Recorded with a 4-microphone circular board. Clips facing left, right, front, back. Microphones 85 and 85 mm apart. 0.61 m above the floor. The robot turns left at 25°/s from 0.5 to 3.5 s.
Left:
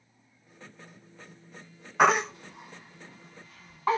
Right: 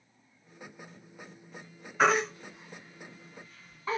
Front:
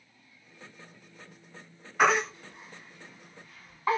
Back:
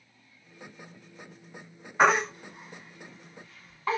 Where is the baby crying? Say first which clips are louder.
Left 3 dB, back 2 dB; 115° left, 1.7 m; by 4.0 s 75° left, 1.7 m.